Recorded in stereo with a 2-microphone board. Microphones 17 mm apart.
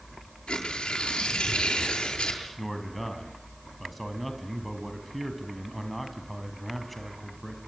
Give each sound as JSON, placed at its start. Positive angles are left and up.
{"t": 0.5, "sound": "tearing paper", "side_deg": 85, "distance_m": 8.5}
{"t": 2.6, "sound": "a man speaking", "side_deg": 10, "distance_m": 3.5}